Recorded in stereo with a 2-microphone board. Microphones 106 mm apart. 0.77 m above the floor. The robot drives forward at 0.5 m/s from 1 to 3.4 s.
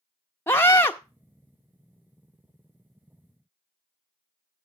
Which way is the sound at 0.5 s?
20° left (ahead or behind).